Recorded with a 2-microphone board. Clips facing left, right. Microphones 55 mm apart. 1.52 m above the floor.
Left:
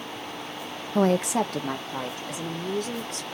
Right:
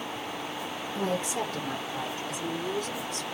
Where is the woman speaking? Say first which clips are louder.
Left 8 dB; 60° left (ahead or behind), 0.6 m; by 3.2 s 75° left (ahead or behind), 4 m.